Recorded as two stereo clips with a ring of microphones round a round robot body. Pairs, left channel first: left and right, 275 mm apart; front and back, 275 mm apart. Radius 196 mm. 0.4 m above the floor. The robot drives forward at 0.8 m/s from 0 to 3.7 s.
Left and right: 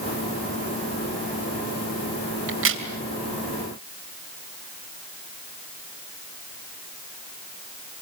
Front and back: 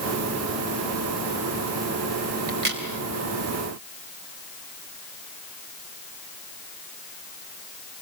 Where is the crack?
125° right, 2.5 m; by 2.8 s 130° right, 2.5 m.